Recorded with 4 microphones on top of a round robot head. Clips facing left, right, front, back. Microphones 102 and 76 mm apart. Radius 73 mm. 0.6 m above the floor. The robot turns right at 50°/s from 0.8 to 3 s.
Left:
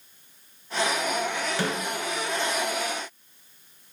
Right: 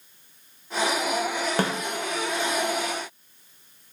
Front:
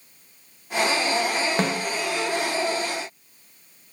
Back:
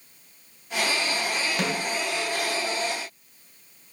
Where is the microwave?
No microwave in this recording.